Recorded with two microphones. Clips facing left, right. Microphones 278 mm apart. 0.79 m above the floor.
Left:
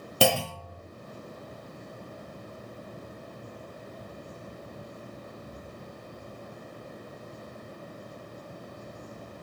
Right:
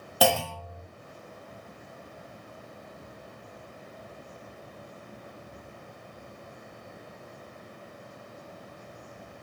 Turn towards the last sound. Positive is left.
turn(degrees=30)  # may be behind; listen again after turning